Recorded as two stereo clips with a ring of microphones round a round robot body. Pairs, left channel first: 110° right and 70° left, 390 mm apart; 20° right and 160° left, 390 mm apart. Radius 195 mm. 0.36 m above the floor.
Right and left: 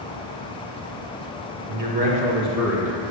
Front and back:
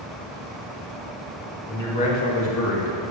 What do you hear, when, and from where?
1.7 s a man speaking: 65° left, 0.8 m; by 3.0 s 15° right, 1.1 m